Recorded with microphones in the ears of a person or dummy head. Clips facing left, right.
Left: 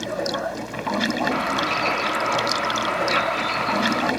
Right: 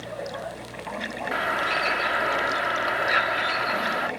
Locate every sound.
0.0 s running water: 80° left
1.3 s a bird: 15° right (ahead or behind)